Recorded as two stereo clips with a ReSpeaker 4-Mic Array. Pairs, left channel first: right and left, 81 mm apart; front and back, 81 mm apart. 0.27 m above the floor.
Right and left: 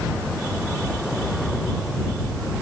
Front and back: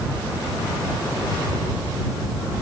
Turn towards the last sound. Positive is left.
No sound to turn to.